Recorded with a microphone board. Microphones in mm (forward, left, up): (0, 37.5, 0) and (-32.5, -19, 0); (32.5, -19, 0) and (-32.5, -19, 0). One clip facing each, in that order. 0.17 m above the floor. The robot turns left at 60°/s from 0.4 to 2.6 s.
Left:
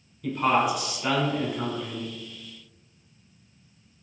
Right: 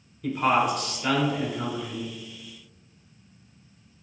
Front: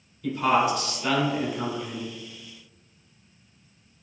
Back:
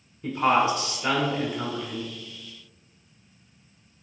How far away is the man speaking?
About 1.2 m.